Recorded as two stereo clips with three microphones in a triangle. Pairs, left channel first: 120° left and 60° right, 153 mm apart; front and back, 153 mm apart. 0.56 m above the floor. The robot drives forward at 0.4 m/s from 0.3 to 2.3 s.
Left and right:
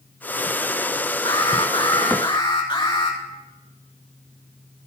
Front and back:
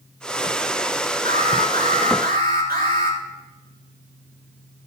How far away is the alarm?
About 4 m.